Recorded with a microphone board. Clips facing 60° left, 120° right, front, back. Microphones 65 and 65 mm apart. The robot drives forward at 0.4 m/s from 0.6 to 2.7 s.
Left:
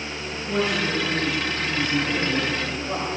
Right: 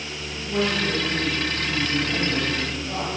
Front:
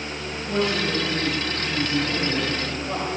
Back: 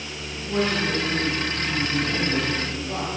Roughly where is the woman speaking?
Ahead.